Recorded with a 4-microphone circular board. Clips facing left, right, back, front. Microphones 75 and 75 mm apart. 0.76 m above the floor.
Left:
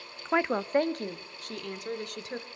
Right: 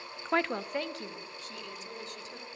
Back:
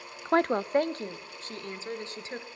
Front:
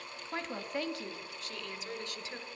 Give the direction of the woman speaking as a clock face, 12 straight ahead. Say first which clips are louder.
Left 3 dB, back 15 dB; 6 o'clock.